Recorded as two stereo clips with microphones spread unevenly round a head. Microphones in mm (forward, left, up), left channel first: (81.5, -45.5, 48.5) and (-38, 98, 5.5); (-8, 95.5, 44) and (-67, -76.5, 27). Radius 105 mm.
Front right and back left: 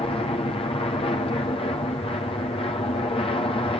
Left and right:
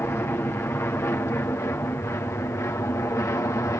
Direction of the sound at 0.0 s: Straight ahead.